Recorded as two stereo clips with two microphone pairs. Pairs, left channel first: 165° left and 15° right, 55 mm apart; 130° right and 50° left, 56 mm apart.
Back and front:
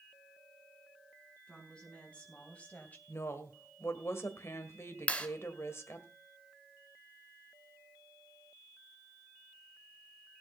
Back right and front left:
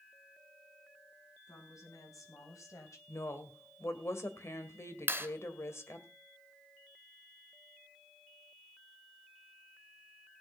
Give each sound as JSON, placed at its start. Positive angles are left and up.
{"t": 1.5, "sound": "a woman speaking", "azimuth_deg": -120, "distance_m": 4.5}
{"t": 3.1, "sound": "a woman speaking", "azimuth_deg": -160, "distance_m": 1.8}
{"t": 5.1, "sound": "a clap", "azimuth_deg": 100, "distance_m": 1.8}